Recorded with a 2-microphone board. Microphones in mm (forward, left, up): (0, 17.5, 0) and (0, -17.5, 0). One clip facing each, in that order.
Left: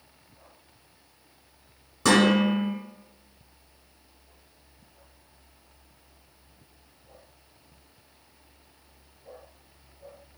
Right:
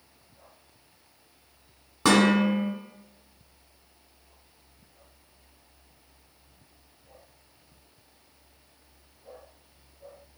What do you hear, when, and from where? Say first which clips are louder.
2.0 s dishes clattering: even; 25° right (ahead or behind), 1.9 m